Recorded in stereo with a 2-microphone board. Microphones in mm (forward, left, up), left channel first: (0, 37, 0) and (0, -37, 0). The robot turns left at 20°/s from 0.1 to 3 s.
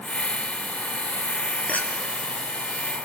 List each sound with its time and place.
1.7 s a clink: 20° left (ahead or behind), 1.6 m; by 1.9 s 25° left (ahead or behind), 1.6 m